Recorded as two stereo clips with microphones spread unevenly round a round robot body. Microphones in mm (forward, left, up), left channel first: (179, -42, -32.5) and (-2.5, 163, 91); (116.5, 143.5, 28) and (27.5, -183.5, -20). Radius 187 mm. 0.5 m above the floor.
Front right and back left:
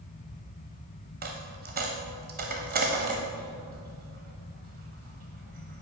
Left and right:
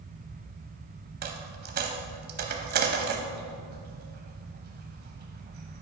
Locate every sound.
1.2 s a dropped coin: 175° right, 0.5 m